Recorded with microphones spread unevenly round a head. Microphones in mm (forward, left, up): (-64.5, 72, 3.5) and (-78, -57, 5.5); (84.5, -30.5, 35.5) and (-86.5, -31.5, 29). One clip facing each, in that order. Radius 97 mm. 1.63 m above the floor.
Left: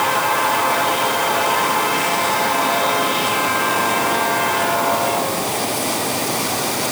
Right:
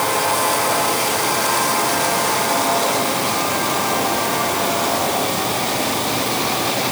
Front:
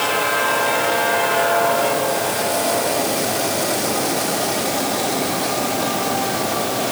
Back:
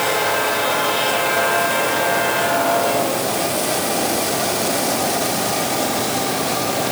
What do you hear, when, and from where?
Only background noise.